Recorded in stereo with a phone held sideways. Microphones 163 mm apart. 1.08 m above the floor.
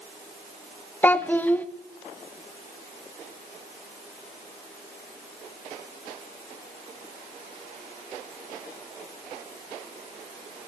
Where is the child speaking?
10° left (ahead or behind), 0.7 m.